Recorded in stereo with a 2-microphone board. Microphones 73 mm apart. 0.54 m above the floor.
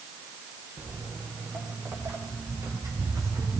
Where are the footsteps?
30° right (ahead or behind), 7 m; by 3.6 s 55° right (ahead or behind), 6 m.